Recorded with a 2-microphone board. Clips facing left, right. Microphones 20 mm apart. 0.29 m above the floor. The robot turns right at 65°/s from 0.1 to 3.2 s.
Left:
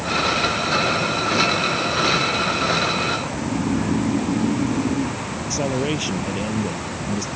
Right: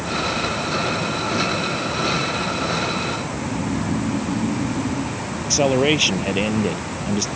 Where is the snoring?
55° left (ahead or behind).